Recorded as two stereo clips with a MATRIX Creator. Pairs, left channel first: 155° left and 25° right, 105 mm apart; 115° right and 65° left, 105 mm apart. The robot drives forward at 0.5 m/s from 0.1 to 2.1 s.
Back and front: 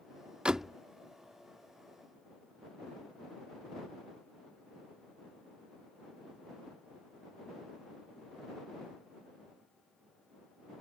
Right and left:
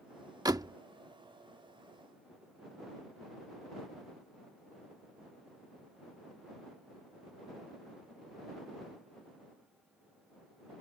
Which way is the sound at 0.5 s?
50° left.